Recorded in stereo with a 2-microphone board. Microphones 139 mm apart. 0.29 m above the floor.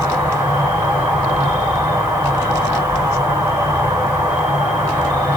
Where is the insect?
15° right (ahead or behind), 1.8 m.